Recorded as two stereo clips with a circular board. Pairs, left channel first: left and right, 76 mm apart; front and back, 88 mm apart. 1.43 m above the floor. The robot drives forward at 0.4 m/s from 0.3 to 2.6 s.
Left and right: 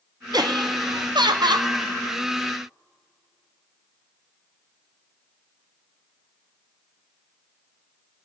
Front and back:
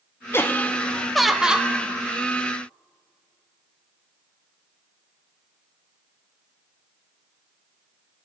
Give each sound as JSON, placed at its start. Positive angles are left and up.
{"t": 0.3, "sound": "laughter", "azimuth_deg": -60, "distance_m": 0.8}